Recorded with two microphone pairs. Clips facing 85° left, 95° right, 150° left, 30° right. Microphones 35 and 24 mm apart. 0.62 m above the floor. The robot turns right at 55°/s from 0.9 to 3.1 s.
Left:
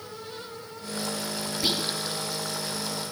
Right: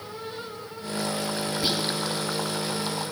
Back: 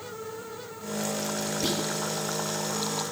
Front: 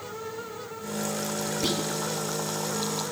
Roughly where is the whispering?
Ahead.